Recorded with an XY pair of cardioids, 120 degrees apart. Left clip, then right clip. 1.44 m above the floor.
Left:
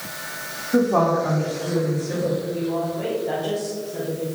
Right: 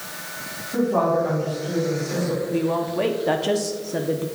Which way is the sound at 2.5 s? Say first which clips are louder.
Right 2 dB; 60° right.